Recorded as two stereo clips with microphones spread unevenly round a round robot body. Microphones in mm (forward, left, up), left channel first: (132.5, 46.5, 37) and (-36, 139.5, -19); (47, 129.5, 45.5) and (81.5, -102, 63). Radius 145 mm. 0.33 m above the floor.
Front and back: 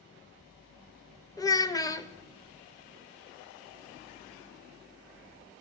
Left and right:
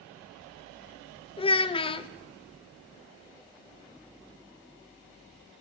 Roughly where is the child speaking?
Ahead left.